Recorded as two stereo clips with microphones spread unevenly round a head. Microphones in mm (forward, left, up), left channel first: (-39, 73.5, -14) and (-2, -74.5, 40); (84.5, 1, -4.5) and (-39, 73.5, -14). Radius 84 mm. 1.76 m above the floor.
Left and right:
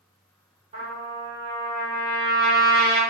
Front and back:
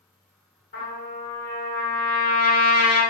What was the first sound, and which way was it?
A trumpet, 35° right.